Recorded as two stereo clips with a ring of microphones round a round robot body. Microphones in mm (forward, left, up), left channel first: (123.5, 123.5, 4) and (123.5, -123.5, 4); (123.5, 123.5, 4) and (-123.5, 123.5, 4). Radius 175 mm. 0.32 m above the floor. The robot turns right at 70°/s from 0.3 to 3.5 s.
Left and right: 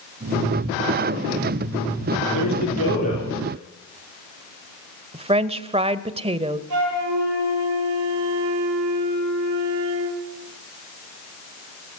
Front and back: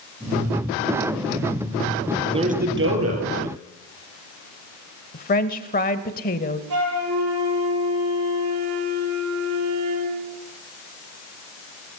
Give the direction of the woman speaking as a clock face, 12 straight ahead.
1 o'clock.